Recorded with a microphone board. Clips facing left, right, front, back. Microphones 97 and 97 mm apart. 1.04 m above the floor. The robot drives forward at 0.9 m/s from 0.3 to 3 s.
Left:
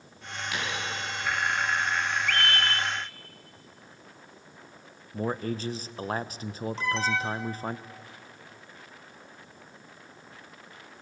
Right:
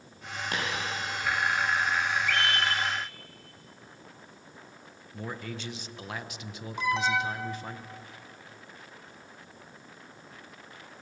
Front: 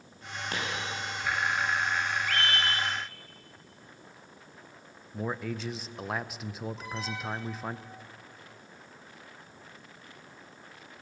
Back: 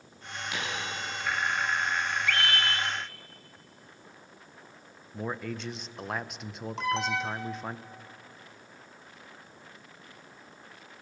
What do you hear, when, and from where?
0.5 s a dropped coin: 45° right, 7.5 m
2.3 s a scream: 55° left, 3 m; by 2.9 s 65° left, 2.5 m
5.1 s a man speaking: 90° left, 0.8 m
6.8 s an alarm: 170° right, 1.3 m